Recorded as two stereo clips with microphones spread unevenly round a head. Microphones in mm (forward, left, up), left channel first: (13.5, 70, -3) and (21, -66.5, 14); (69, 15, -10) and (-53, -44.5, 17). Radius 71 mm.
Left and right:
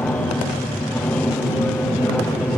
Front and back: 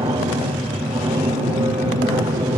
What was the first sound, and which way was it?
An aircraft, 165° left.